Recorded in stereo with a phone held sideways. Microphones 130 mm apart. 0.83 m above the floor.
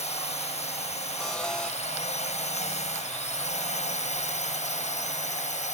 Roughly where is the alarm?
Centre.